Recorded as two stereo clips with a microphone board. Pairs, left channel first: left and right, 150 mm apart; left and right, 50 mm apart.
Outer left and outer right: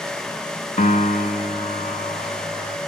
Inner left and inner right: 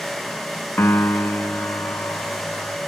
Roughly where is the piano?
Left.